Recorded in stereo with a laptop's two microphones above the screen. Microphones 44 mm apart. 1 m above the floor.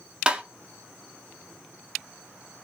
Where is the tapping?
20° right (ahead or behind), 0.6 m.